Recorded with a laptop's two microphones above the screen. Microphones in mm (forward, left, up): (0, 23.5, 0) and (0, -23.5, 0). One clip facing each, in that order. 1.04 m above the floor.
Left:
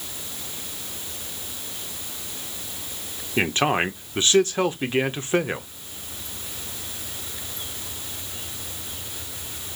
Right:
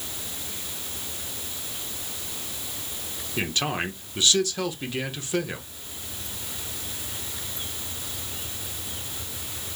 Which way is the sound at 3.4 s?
35° left (ahead or behind).